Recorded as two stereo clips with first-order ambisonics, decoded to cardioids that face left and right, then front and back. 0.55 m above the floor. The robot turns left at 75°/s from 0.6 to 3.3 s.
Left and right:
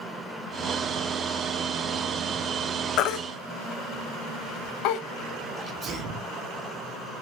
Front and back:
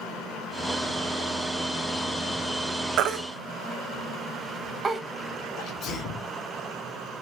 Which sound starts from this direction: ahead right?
A sneeze, at 5.6 s.